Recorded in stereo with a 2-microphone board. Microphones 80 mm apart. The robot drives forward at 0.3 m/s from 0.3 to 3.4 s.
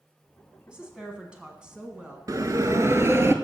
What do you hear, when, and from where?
0.7 s a woman speaking: 10° right (ahead or behind), 1.6 m
2.3 s a bell: 50° right (ahead or behind), 0.6 m; by 3.3 s 35° right (ahead or behind), 0.8 m